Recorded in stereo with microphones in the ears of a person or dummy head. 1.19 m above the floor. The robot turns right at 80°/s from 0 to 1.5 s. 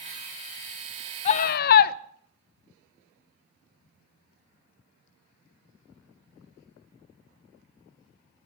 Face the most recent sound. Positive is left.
turn(degrees=50)  # may be behind; listen again after turning